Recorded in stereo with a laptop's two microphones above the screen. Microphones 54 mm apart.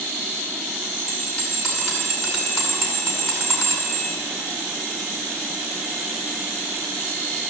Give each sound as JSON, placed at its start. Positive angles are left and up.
{"t": 1.1, "sound": "a bell", "side_deg": 0, "distance_m": 9.0}